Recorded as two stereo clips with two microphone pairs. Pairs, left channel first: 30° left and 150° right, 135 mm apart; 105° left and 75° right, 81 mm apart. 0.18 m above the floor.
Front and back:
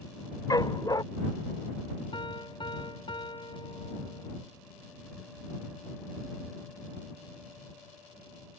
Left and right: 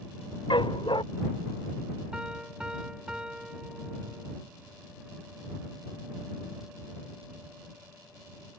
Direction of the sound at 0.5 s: 90° left.